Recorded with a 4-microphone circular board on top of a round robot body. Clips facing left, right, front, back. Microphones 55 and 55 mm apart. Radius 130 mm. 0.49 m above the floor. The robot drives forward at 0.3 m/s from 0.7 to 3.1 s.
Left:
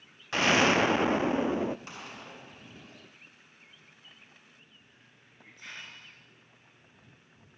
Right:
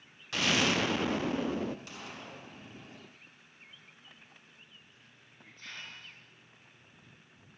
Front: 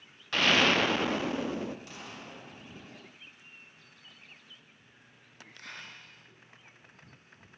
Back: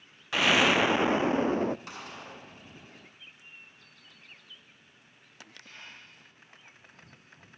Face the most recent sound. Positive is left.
turn(degrees=15)